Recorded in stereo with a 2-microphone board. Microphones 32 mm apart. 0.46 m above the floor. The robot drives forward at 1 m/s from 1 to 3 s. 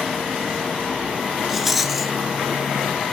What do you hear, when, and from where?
1.5 s a rattle: 5° right (ahead or behind), 0.8 m